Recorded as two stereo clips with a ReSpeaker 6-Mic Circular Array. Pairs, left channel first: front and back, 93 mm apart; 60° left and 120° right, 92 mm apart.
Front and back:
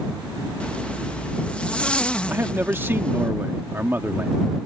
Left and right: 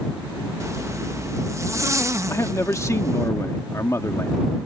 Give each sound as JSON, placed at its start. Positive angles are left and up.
{"t": 0.6, "sound": "a zipper", "azimuth_deg": -75}
{"t": 2.3, "sound": "a man speaking", "azimuth_deg": 115}